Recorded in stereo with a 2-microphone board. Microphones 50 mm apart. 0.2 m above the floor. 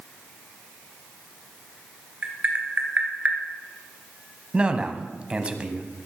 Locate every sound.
2.2 s tapping: 35° right (ahead or behind), 2 m
4.5 s a man speaking: 20° right (ahead or behind), 1.0 m